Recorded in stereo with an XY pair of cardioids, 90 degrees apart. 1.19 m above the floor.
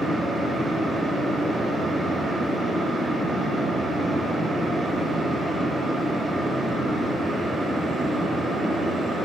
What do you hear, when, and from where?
0.0 s a fan: 45° right, 0.9 m